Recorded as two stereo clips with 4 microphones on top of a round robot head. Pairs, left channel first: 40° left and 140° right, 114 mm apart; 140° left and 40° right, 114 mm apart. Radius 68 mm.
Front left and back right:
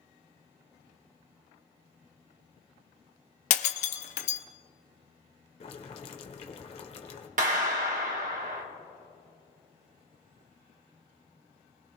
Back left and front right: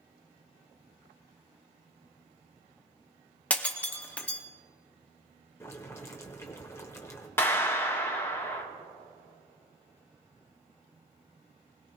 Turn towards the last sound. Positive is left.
turn(degrees=-150)